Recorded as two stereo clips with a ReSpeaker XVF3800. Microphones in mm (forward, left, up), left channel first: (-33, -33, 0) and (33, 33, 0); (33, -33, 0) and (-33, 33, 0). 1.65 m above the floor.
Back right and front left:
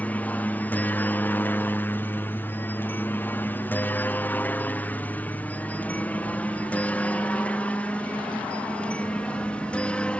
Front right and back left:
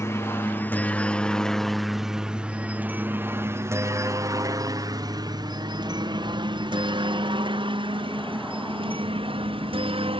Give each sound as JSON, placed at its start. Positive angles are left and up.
{"t": 0.0, "sound": "a helicopter", "azimuth_deg": -75}